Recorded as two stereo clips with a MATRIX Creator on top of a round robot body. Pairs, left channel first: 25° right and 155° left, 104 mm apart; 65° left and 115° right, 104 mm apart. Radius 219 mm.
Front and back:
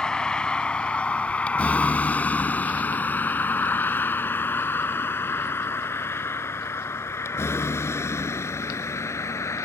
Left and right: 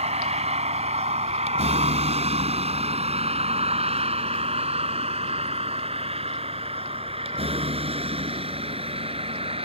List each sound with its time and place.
0.0 s a vehicle: 105° right; by 9.7 s 85° right